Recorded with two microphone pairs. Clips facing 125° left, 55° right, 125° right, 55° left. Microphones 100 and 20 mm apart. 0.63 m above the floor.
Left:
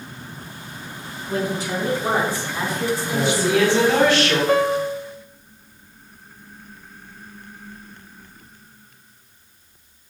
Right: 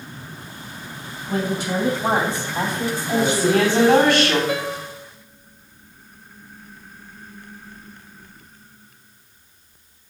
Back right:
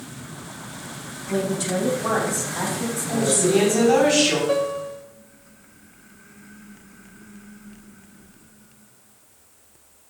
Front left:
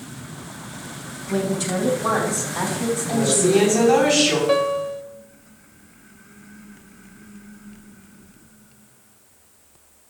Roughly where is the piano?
Left.